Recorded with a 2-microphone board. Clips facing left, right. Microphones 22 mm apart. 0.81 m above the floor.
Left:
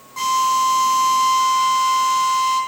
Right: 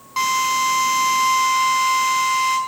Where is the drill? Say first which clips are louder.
Left 1 dB; 55° right (ahead or behind), 6 m.